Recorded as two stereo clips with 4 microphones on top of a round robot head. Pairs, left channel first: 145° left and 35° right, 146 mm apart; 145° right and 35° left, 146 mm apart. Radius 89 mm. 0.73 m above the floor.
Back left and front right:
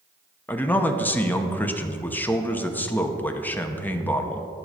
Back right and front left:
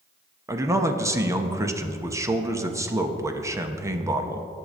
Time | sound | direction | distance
0.5 | a man speaking | 80° left | 1.0 m